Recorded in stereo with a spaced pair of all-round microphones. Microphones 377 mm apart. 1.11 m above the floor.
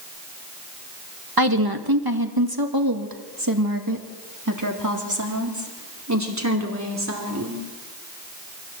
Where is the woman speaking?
65° right (ahead or behind), 1.7 m; by 7.6 s 45° right (ahead or behind), 4.5 m.